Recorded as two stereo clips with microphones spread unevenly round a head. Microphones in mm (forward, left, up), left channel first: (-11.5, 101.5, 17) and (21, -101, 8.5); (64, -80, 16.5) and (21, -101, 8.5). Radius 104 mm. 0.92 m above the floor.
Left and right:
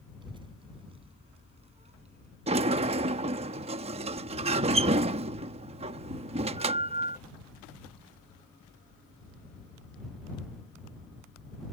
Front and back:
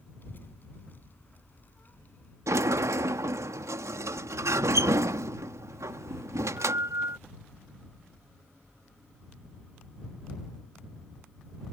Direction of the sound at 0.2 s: 15° right.